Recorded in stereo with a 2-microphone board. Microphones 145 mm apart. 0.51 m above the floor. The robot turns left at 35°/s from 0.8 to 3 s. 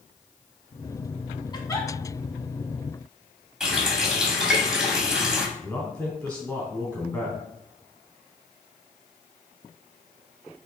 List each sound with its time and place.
1.5 s a giggle: 30° left (ahead or behind), 1.2 m; by 1.9 s 15° left (ahead or behind), 1.2 m
3.6 s a running tap: 5° right (ahead or behind), 2.0 m
5.6 s a man speaking: 10° left (ahead or behind), 3.5 m